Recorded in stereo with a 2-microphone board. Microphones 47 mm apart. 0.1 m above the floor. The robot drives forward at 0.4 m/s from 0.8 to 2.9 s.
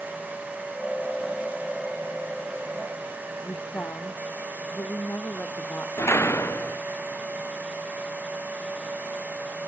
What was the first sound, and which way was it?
A woman speaking, 60° left (ahead or behind).